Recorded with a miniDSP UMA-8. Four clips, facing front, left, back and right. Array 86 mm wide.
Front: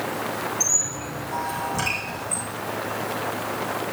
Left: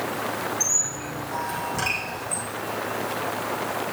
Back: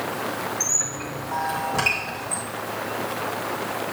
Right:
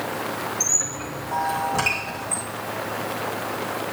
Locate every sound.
0.6 s a squeak: 150° right, 3.5 m